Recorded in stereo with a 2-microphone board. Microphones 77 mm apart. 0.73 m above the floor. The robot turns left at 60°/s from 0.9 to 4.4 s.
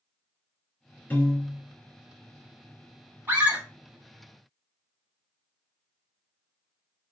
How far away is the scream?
About 1.5 m.